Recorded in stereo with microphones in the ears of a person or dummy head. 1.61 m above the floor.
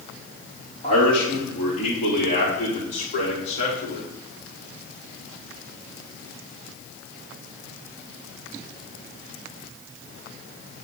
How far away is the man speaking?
About 3.5 m.